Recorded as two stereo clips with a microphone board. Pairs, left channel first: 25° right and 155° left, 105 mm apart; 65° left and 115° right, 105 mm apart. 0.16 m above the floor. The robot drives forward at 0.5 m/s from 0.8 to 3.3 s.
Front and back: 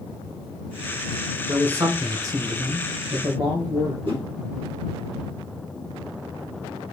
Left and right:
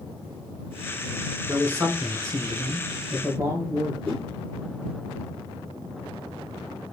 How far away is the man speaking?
About 1.1 m.